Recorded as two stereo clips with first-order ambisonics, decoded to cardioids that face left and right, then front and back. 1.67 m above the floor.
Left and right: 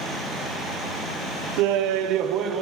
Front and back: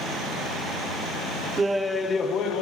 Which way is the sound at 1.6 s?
105° right.